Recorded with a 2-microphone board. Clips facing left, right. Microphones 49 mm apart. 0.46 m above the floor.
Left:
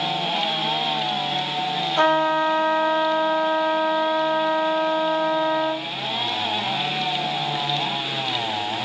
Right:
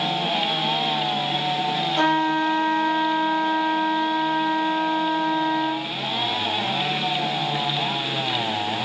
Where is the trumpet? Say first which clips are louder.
Left 3 dB; 15° left (ahead or behind), 1.2 m.